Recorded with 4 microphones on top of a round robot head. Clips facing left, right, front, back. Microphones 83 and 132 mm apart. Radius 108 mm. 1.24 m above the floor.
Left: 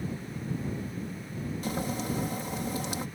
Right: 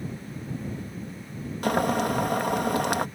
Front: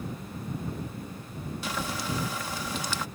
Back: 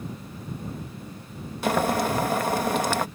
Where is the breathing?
No breathing in this recording.